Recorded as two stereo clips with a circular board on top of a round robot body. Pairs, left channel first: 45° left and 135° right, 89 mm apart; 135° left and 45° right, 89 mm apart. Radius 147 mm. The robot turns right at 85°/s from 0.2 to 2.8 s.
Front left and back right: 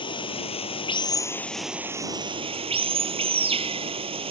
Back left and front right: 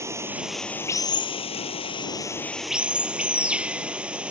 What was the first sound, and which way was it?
Running water, 15° left.